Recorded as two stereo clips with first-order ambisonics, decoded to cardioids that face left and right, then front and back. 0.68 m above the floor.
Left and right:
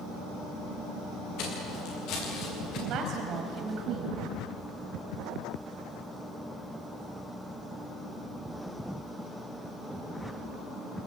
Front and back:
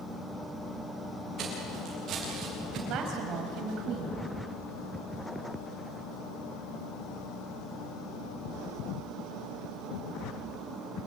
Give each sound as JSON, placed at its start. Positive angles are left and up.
{"t": 1.4, "sound": "footsteps", "azimuth_deg": 125, "distance_m": 8.5}
{"t": 2.9, "sound": "a woman speaking", "azimuth_deg": -135, "distance_m": 5.0}